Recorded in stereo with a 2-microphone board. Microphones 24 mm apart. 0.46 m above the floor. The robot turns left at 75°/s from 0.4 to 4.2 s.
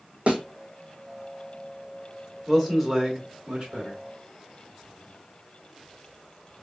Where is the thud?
60° right (ahead or behind), 1.1 m.